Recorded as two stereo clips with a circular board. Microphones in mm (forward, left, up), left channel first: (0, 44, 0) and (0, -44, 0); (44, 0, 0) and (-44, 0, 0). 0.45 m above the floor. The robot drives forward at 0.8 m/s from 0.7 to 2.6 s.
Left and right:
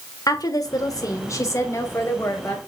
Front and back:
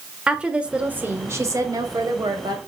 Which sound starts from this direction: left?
A woman speaking, at 0.3 s.